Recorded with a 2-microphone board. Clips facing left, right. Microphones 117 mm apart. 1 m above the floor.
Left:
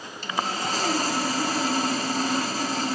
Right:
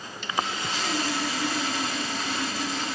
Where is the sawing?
40° left (ahead or behind), 0.9 m.